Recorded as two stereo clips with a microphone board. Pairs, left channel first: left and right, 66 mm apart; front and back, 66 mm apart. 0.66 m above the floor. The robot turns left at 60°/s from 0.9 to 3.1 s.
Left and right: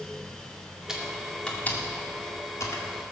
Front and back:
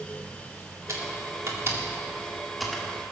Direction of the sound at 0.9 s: 165° right.